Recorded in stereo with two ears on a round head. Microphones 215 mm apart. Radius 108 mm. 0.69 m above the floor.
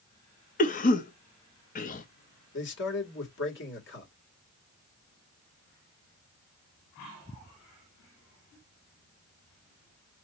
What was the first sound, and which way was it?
A cough, 35° left (ahead or behind).